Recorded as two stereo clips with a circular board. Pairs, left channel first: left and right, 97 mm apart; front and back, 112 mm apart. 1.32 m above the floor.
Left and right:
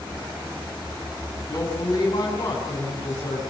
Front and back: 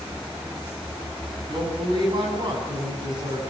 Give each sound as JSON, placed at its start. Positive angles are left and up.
{"t": 1.5, "sound": "a woman speaking", "azimuth_deg": 135, "distance_m": 9.5}